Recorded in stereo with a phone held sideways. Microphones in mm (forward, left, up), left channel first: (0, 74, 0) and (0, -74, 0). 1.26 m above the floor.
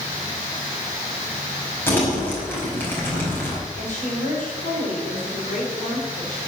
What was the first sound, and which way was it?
Crumpling, 15° left (ahead or behind).